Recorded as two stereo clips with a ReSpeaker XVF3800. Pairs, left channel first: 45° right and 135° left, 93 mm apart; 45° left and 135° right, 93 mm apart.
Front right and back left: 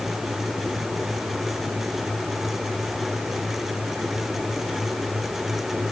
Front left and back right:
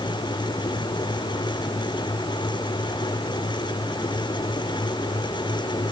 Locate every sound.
Only background noise.